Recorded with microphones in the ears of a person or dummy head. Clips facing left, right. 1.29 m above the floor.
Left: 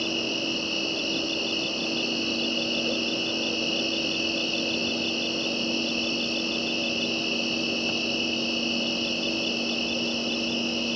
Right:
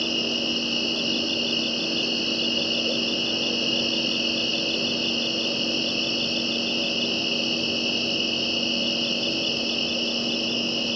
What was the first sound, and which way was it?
An insect, 5° right (ahead or behind).